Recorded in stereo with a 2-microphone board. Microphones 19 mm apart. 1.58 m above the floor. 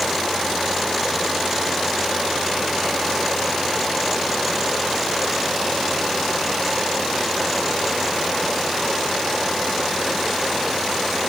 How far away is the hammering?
No hammering in this recording.